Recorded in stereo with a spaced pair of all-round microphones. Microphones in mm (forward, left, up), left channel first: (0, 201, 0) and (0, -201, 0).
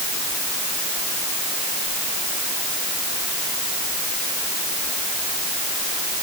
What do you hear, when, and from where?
Only background noise.